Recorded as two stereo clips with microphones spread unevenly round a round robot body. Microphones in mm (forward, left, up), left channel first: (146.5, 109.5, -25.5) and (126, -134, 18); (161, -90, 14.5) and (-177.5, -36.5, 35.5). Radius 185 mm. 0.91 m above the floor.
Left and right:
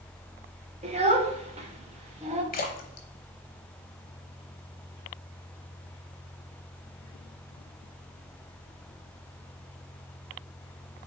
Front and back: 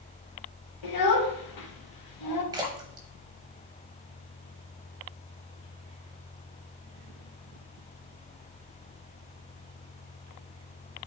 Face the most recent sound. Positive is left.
turn(degrees=115)